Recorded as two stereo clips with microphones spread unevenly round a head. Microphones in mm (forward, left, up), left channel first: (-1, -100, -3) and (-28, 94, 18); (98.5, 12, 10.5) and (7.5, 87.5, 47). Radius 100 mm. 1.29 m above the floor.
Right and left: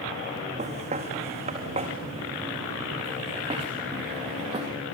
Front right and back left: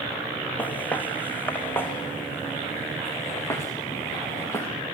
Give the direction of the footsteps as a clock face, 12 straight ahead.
11 o'clock.